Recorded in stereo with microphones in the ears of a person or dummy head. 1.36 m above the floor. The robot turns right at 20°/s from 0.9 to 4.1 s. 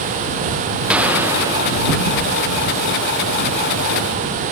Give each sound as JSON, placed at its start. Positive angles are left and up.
{"t": 0.9, "sound": "a gunshot", "side_deg": 0}